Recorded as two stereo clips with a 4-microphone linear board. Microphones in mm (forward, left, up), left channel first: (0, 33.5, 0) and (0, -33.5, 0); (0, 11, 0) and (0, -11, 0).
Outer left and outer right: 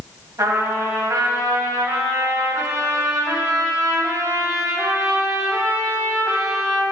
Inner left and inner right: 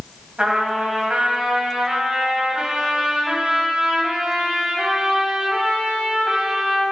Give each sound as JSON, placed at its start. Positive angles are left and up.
{"t": 0.4, "sound": "a trumpet", "side_deg": -70, "distance_m": 1.6}